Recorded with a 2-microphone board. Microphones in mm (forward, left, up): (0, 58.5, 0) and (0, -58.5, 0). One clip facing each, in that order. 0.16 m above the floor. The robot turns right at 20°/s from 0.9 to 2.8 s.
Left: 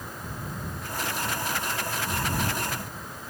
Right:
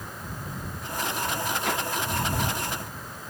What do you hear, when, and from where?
1.6 s a whoosh: 85° right